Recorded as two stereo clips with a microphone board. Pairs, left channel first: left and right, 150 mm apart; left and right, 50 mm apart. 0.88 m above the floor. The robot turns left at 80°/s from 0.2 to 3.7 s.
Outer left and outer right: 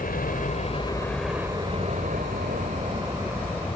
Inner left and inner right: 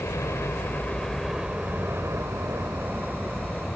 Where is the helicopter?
70° left (ahead or behind); by 3.8 s 20° left (ahead or behind).